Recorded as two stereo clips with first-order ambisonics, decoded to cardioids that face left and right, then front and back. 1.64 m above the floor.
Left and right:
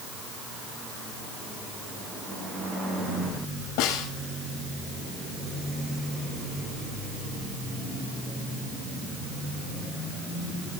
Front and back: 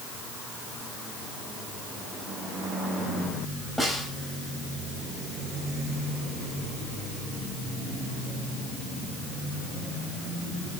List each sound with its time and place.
3.8 s a snare drum: 90° left, 6 m